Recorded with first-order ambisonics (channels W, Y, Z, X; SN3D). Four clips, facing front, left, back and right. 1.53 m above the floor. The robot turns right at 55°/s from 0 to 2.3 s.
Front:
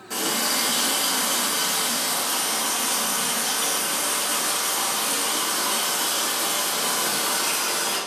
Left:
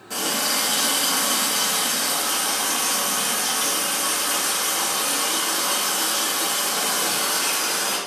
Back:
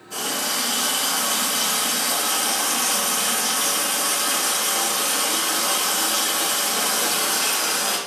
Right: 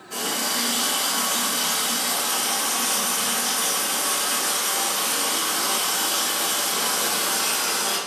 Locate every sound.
0.1 s a running tap: 50° left, 1.3 m; by 8.0 s 170° left, 1.3 m